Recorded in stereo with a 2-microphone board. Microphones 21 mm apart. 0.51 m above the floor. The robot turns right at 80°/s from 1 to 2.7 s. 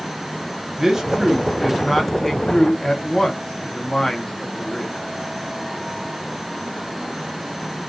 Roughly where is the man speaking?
Right.